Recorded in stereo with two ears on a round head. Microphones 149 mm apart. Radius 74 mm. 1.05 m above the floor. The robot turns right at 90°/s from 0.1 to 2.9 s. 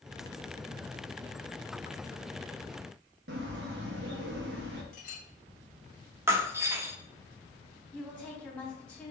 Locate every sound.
3.3 s a bird: 70° right (ahead or behind), 1.0 m
4.9 s a clink: 50° left (ahead or behind), 1.3 m
6.3 s breaking glass: 15° right (ahead or behind), 0.6 m
7.9 s a woman speaking: 10° left (ahead or behind), 2.5 m